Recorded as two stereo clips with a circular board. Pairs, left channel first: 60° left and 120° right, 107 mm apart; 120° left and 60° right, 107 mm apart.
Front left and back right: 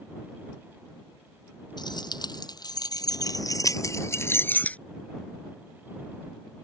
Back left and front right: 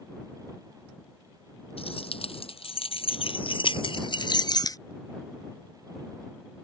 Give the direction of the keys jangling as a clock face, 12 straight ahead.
9 o'clock.